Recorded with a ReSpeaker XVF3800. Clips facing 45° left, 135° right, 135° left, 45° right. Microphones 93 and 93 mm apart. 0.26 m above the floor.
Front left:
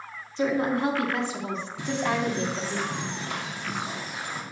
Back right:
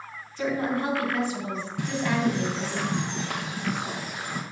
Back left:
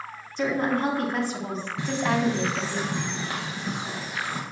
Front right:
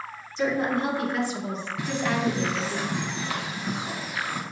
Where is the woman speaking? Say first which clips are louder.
Front left 2 dB, even; 110° left, 2.5 m; by 2.8 s 65° left, 1.4 m.